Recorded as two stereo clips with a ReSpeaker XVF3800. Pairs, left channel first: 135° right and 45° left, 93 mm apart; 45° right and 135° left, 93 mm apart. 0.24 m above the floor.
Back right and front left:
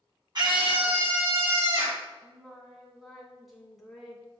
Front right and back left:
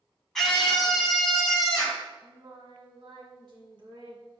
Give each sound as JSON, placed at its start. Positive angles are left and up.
{"t": 0.3, "sound": "a scream", "azimuth_deg": 40, "distance_m": 2.0}
{"t": 2.2, "sound": "singing", "azimuth_deg": 135, "distance_m": 1.8}